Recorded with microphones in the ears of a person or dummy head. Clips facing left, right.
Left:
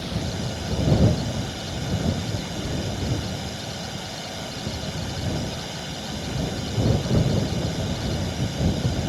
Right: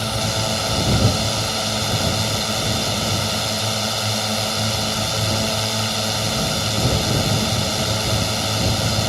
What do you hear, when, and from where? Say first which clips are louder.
0.0 s a drone: right 5 dB; 80° right